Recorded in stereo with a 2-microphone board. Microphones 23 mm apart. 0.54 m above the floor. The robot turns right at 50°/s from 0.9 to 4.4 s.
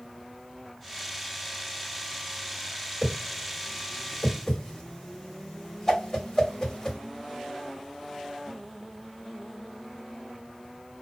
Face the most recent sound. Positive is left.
turn(degrees=25)  # may be behind; listen again after turning